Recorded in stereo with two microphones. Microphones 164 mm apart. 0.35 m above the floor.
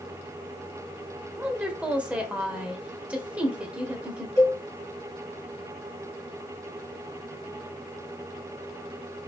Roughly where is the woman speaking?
Centre.